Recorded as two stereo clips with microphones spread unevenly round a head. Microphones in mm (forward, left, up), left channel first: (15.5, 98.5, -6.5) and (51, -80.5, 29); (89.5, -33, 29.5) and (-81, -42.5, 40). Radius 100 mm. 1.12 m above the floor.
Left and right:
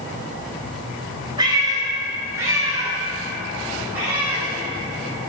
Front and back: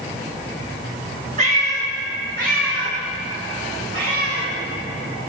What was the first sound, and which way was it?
A cat meowing, 140° right.